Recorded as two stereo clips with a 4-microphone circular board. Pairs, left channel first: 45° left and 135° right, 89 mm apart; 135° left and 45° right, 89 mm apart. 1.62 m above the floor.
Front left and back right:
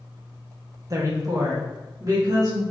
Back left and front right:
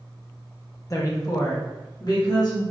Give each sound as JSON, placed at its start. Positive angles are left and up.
{"t": 0.9, "sound": "a woman speaking", "azimuth_deg": 180, "distance_m": 0.5}